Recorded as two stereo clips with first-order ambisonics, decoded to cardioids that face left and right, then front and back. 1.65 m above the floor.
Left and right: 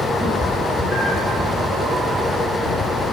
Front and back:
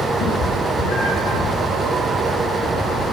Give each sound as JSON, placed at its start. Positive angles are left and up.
{"t": 0.2, "sound": "a cat meowing", "azimuth_deg": -15, "distance_m": 4.5}